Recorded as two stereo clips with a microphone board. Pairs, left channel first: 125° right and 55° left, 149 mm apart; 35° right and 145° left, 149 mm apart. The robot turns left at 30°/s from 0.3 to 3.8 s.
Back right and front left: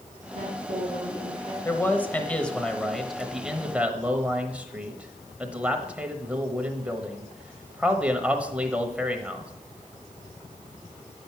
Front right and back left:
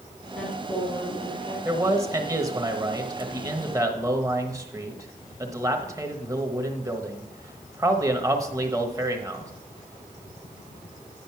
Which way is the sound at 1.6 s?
175° right.